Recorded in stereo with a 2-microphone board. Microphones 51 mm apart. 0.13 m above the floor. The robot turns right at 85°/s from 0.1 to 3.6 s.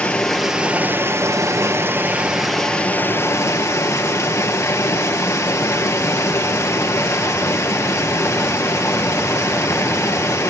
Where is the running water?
155° left, 2.5 m; by 10.5 s 95° left, 2.5 m.